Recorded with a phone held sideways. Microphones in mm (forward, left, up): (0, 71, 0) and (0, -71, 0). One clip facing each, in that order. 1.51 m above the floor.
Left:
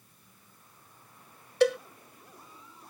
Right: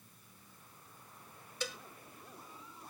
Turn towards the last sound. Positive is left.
turn(degrees=75)  # may be behind; listen again after turning